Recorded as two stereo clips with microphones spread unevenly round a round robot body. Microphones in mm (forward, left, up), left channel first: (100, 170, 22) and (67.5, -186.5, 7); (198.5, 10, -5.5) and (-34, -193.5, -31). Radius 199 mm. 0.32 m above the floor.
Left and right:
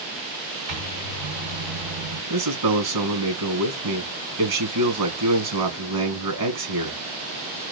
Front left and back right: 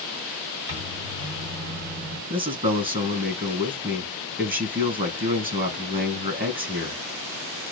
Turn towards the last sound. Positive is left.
turn(degrees=-80)